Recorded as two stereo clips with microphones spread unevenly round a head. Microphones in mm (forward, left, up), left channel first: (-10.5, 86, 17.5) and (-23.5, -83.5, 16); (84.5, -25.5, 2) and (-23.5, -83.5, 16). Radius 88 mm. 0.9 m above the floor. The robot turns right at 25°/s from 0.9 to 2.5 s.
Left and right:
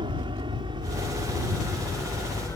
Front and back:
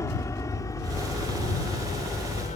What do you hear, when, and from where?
0.0 s an aircraft: 35° right; by 2.6 s 10° left